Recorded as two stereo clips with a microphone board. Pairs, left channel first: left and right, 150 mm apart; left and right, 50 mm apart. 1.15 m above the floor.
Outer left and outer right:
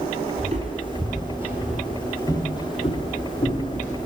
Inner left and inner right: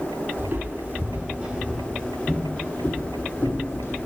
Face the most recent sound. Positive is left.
turn(degrees=55)  # may be behind; listen again after turning